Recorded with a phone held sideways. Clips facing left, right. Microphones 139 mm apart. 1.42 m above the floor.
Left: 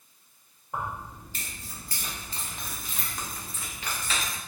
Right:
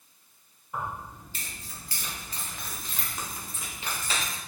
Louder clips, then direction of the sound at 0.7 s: Left 1 dB; 55° left (ahead or behind).